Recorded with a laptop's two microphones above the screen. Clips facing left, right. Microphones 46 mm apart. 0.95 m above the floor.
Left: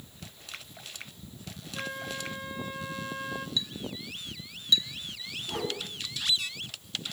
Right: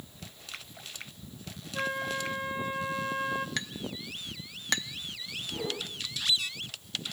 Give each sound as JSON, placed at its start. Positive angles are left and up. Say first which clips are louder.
{"t": 1.7, "sound": "a flute", "louder": "right 5 dB", "side_deg": -20, "distance_m": 0.6}
{"t": 3.6, "sound": "a clink", "louder": "even", "side_deg": -60, "distance_m": 0.6}
{"t": 5.5, "sound": "a whoosh", "louder": "left 2 dB", "side_deg": 75, "distance_m": 7.0}